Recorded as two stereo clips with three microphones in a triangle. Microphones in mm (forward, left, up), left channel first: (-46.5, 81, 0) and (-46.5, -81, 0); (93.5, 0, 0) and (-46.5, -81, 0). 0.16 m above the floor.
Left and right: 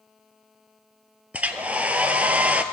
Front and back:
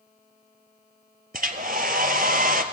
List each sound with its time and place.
1.3 s a hair dryer: 170° right, 0.7 m